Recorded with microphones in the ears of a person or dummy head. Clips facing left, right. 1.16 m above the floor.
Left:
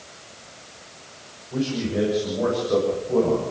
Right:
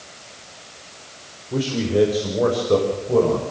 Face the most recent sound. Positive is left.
turn(degrees=-50)  # may be behind; listen again after turning